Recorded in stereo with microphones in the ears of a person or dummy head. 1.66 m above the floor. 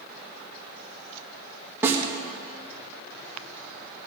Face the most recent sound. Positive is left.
turn(degrees=-15)  # may be behind; listen again after turning